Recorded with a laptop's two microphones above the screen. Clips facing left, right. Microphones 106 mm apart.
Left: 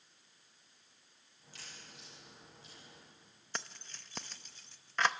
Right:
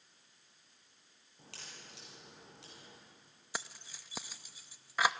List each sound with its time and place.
1.4 s a crack: 80° right, 9.5 m
3.5 s keys jangling: 5° right (ahead or behind), 0.8 m